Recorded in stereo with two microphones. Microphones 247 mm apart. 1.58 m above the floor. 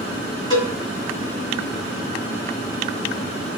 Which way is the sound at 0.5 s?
20° left (ahead or behind).